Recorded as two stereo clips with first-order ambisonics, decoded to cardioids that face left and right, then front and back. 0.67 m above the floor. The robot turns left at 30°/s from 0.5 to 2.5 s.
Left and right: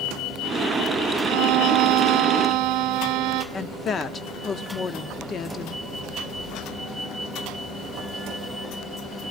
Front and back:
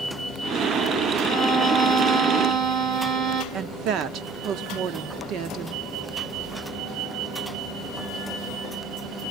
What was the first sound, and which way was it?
A violin, 95° right.